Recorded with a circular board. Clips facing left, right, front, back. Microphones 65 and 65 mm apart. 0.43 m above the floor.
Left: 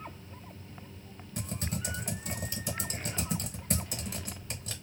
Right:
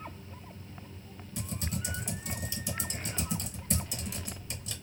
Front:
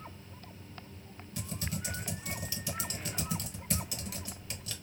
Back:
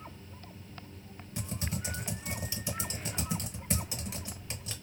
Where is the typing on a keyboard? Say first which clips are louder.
Left 1 dB, back 1 dB; 120° left, 0.7 m.